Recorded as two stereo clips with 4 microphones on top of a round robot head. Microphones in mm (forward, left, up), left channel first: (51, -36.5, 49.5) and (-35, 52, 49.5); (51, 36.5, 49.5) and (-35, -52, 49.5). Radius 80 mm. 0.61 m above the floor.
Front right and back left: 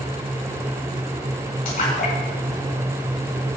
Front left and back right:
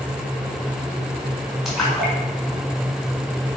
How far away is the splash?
About 5 m.